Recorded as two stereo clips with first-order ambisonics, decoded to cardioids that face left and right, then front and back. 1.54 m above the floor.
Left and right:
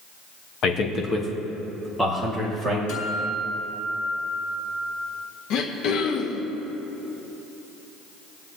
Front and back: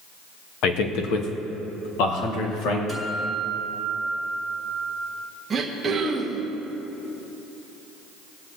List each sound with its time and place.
0.6 s a man speaking: 35° left, 1.1 m; by 2.8 s 5° right, 2 m
2.9 s a guitar: 75° left, 3 m
5.5 s throat clearing: 110° left, 1.1 m